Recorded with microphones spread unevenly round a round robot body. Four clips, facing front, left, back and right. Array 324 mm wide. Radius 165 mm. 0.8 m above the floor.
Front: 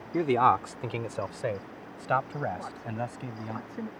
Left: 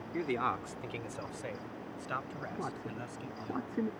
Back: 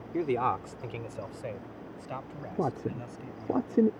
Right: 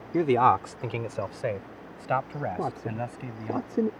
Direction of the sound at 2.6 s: 155° right.